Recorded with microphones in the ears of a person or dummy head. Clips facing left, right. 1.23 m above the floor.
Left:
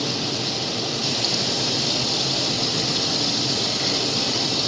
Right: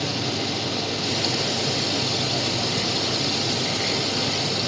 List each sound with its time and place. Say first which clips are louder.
0.0 s running water: even; 70° left (ahead or behind), 9 m